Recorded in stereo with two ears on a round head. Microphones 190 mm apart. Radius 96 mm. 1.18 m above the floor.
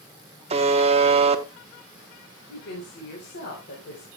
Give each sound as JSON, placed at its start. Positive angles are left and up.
{"t": 0.5, "sound": "a buzzer", "side_deg": -30, "distance_m": 1.2}
{"t": 2.5, "sound": "a woman speaking", "side_deg": 50, "distance_m": 4.0}